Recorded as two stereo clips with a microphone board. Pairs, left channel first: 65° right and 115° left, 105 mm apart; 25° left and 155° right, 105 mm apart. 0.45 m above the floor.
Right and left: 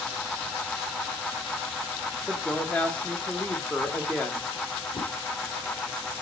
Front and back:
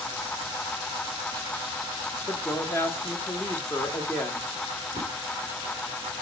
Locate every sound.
2.3 s a woman speaking: straight ahead, 1.2 m
4.9 s a whoosh: 95° right, 3 m